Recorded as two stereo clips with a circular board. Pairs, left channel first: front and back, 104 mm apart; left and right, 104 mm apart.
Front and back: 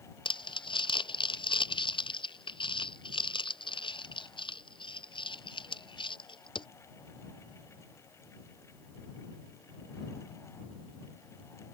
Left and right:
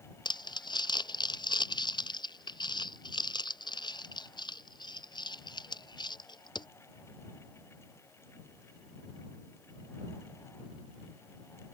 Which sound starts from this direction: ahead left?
Crumpling, at 0.2 s.